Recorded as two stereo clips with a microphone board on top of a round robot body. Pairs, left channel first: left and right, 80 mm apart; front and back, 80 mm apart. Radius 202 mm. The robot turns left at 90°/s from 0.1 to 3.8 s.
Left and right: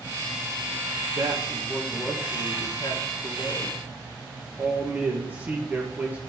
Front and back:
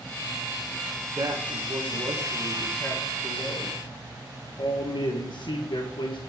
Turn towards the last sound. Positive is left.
turn(degrees=-20)